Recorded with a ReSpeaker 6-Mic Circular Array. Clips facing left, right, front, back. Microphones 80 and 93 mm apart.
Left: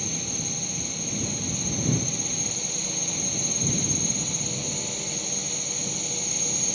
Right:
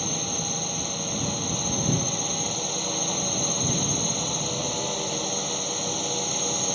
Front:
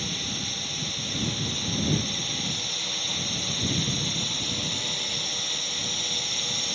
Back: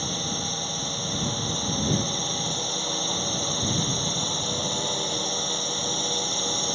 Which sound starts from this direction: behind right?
A drone, at 0.0 s.